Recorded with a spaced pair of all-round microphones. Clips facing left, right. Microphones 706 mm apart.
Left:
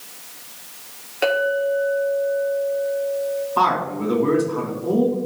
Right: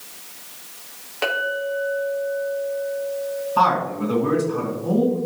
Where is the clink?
35° right (ahead or behind), 2.0 m.